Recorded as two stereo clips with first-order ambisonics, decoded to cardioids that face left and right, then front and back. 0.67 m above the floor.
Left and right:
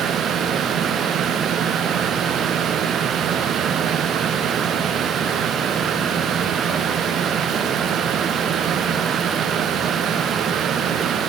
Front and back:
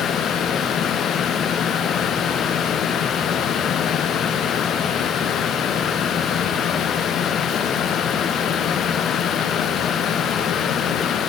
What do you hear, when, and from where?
Only background noise.